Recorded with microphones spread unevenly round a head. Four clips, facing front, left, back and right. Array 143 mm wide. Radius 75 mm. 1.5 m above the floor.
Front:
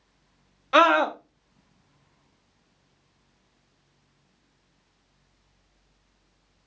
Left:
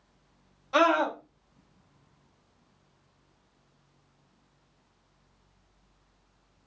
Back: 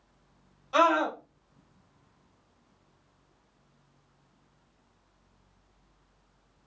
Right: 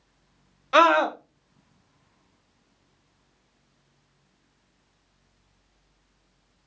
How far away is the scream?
About 0.9 m.